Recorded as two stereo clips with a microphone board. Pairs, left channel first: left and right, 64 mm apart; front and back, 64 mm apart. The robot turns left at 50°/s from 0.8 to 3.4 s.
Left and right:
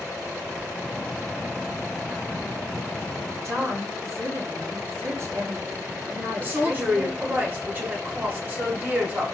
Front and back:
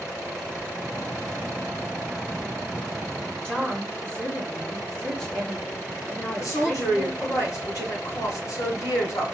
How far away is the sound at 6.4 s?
About 1.7 m.